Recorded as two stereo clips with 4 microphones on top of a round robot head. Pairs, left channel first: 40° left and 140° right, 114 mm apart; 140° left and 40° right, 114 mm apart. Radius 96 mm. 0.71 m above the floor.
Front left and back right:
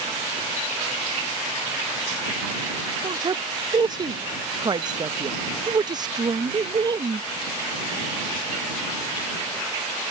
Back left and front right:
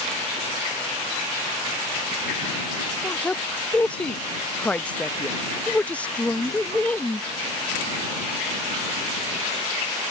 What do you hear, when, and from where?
3.0 s a woman speaking: 150° right